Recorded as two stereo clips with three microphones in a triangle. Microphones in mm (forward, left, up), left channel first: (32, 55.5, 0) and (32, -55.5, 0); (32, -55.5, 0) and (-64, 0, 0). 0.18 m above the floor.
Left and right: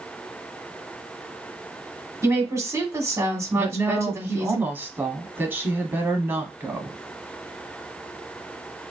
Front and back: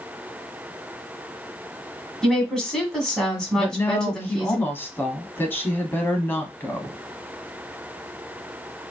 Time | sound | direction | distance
2.2 | a woman speaking | 110° right | 1.7 m
3.6 | a woman speaking | 60° right | 1.0 m